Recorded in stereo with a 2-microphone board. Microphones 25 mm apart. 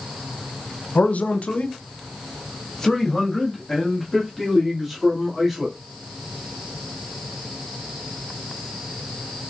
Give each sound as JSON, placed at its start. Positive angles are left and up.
{"t": 0.9, "sound": "a man speaking", "side_deg": 75, "distance_m": 0.7}